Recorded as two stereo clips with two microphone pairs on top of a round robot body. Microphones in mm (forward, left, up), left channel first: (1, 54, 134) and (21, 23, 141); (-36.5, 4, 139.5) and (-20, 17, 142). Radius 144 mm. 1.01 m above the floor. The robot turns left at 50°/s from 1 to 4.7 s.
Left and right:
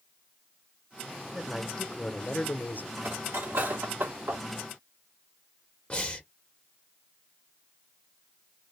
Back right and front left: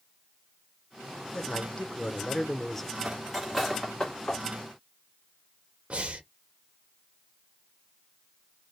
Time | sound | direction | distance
1.3 | a man speaking | 140° right | 0.9 m
3.0 | cutlery clinking | 30° right | 1.7 m
5.9 | breathing | 70° left | 1.4 m